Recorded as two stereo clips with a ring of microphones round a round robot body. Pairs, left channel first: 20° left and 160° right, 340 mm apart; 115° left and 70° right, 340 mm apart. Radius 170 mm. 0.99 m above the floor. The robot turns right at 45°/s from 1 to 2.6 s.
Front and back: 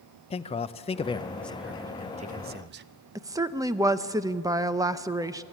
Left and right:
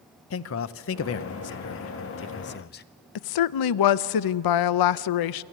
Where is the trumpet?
I don't hear a trumpet.